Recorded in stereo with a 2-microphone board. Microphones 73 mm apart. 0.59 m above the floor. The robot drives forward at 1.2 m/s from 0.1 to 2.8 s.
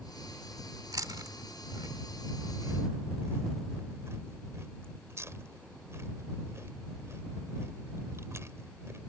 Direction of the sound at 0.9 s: 55° right (ahead or behind).